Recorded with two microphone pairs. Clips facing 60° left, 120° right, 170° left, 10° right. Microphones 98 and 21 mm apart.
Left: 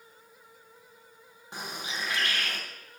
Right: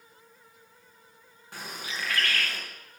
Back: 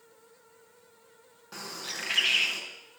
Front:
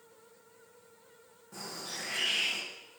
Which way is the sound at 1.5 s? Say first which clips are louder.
Left 1 dB, back 3 dB; 130° left.